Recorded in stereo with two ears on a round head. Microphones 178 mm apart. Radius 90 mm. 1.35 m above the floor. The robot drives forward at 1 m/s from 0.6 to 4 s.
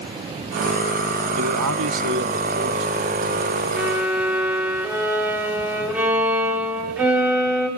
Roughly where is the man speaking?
Right.